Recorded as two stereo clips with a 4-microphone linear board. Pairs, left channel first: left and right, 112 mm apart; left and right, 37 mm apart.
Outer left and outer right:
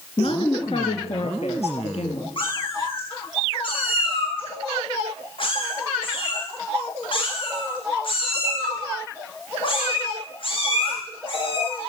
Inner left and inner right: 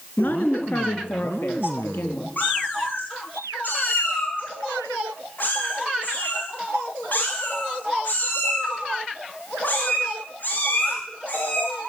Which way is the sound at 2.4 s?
50° left (ahead or behind).